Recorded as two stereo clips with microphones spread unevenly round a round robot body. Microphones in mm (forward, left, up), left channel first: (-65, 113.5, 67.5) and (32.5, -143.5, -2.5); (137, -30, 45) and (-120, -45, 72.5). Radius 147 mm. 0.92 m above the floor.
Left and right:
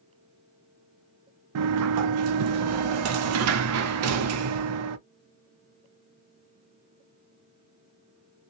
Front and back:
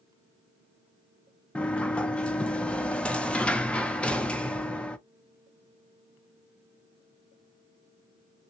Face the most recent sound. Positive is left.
turn(degrees=-80)